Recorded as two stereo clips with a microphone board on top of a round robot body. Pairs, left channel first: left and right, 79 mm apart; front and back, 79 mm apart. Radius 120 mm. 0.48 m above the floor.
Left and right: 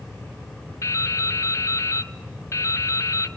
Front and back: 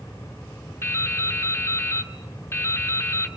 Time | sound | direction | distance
0.8 | dripping | 50° left | 1.8 m